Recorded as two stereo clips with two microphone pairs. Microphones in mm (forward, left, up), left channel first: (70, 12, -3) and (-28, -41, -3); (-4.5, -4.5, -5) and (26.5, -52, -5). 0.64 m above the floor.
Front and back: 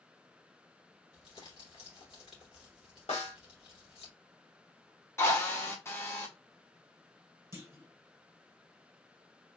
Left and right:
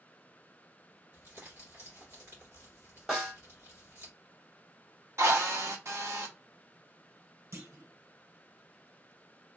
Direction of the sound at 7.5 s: 85° right.